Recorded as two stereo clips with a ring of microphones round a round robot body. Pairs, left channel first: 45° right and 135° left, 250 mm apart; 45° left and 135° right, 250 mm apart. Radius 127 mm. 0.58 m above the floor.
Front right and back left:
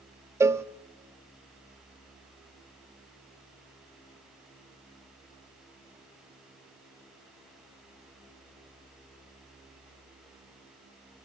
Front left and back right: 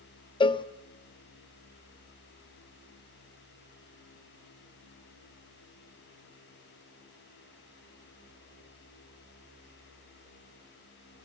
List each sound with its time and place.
0.4 s a cowbell: 75° left, 0.5 m